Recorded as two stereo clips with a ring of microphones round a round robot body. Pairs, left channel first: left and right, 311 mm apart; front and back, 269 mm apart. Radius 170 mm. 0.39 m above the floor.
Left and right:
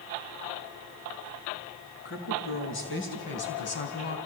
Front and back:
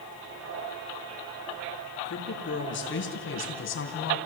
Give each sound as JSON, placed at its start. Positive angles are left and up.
{"t": 2.0, "sound": "a woman speaking", "azimuth_deg": 45, "distance_m": 6.0}